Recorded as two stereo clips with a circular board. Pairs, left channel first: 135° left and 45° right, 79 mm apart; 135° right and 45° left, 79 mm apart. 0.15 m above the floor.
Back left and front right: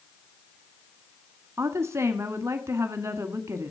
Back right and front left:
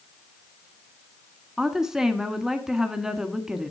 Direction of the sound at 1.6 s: 35° right.